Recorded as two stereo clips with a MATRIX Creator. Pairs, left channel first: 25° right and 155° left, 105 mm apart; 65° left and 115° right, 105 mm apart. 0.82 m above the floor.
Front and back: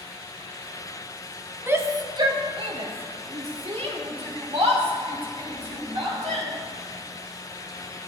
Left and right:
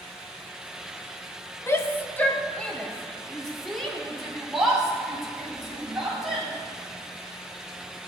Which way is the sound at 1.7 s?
105° left.